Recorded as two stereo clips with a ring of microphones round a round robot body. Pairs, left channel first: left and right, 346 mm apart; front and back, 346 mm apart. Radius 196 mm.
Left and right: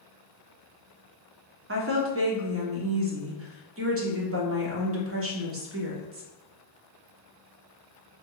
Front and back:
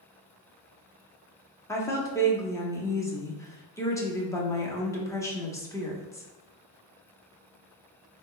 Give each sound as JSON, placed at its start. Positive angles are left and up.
{"t": 1.7, "sound": "a woman speaking", "azimuth_deg": -75, "distance_m": 1.2}